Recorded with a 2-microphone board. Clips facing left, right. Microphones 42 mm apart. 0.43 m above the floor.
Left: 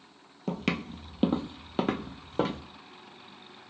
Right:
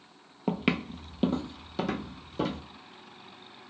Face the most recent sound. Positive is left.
turn(degrees=50)  # may be behind; listen again after turning